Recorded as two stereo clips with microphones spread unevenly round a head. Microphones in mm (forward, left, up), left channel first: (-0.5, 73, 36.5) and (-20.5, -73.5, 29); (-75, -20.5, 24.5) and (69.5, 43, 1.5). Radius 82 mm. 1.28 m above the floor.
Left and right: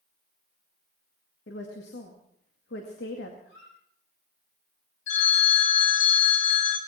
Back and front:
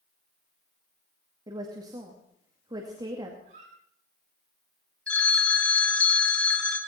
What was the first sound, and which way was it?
A woman speaking, 90° left.